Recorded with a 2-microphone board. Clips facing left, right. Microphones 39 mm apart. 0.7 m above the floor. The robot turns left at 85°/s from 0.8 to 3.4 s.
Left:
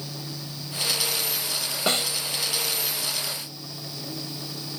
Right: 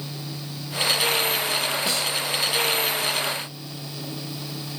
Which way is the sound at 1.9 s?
45° left (ahead or behind).